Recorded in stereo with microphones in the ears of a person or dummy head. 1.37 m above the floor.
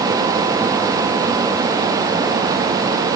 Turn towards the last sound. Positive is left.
No sound to turn to.